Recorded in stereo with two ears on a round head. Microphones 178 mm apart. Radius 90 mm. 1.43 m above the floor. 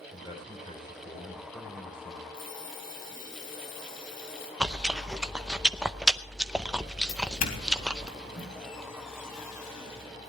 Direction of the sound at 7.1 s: 45° left (ahead or behind).